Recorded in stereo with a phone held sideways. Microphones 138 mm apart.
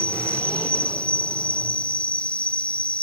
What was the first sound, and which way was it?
An insect, 10° left (ahead or behind).